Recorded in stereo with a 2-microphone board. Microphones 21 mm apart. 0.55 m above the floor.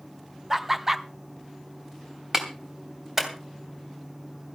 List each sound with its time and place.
0.5 s laughter: 15° right (ahead or behind), 0.6 m
2.3 s a clap: 15° right (ahead or behind), 2.5 m